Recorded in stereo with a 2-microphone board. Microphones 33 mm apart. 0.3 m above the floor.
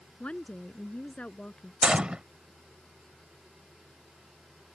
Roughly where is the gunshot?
Right.